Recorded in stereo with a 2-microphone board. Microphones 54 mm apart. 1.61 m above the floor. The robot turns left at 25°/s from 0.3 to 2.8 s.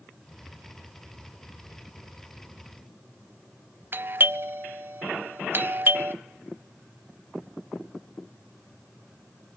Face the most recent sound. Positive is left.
turn(degrees=-40)  # may be behind; listen again after turning